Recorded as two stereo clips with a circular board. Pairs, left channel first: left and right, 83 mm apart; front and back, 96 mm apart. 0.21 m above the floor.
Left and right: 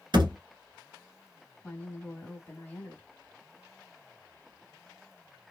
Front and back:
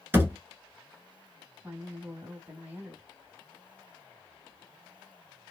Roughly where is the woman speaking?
Behind left.